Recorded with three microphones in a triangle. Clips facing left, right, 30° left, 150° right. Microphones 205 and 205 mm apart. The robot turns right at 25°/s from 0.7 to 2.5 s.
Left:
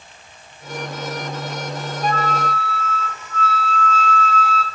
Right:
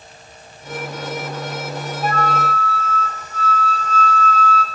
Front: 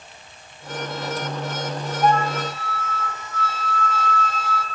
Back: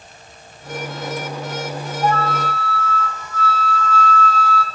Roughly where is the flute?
Ahead right.